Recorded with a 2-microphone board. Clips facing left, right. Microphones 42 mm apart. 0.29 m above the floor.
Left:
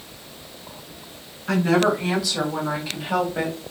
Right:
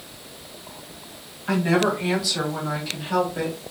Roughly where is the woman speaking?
Centre.